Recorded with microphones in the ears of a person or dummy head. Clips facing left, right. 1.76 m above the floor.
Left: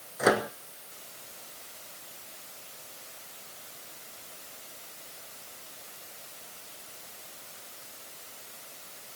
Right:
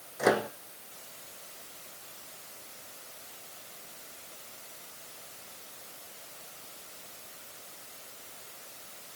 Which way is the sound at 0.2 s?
5° left (ahead or behind).